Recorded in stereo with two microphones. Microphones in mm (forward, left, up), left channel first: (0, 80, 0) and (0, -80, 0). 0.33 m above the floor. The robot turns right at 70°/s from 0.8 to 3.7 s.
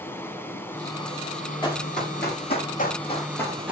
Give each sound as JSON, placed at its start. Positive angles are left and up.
{"t": 0.0, "sound": "running water", "azimuth_deg": 15, "distance_m": 2.0}
{"t": 1.6, "sound": "running footsteps", "side_deg": 30, "distance_m": 7.0}